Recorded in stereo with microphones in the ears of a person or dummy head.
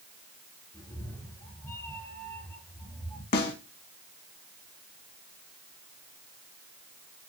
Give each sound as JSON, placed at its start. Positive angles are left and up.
{"t": 0.7, "sound": "a cat meowing", "side_deg": 20, "distance_m": 3.0}
{"t": 3.3, "sound": "a snare drum", "side_deg": 50, "distance_m": 2.5}